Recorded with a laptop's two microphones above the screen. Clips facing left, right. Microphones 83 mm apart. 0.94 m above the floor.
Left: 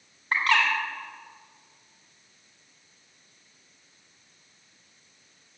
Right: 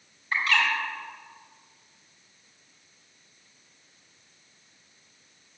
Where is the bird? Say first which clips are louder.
Left 2 dB; 60° left (ahead or behind), 2.5 m.